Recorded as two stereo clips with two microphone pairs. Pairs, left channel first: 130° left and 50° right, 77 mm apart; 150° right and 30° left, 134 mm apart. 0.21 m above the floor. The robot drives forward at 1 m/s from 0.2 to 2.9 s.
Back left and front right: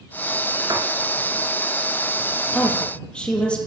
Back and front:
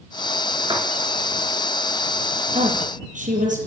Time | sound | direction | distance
0.7 | writing | 25° right | 5 m
2.5 | a woman speaking | 50° left | 7 m